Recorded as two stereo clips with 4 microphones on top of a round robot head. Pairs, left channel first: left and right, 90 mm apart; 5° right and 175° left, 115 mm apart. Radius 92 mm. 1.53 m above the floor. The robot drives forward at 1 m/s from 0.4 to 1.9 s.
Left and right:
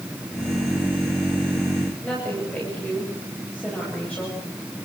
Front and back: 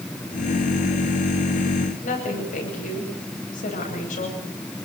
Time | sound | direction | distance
2.0 | a woman speaking | 10° left | 9 m